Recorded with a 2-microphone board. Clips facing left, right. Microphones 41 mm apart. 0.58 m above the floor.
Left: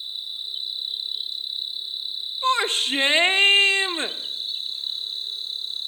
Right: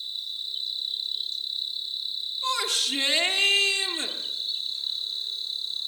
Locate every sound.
0.0 s an insect: 20° left (ahead or behind), 1.3 m
2.4 s a shout: 35° left (ahead or behind), 1.0 m